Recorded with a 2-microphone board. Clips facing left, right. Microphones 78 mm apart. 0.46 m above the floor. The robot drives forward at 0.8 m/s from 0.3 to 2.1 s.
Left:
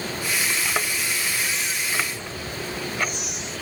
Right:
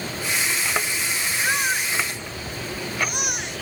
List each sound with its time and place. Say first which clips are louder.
1.4 s a baby crying: right 5 dB; 55° right (ahead or behind); by 3.6 s 60° right (ahead or behind)